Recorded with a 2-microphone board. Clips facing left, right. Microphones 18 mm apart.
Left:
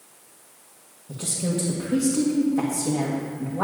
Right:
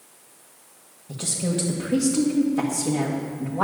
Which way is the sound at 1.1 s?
25° right (ahead or behind).